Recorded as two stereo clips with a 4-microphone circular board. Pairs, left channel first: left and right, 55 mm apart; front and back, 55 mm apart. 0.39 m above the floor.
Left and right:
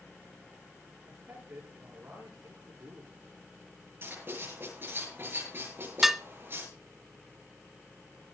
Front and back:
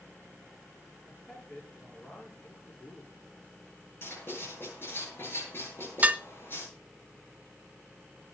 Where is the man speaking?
55° right, 9.5 m.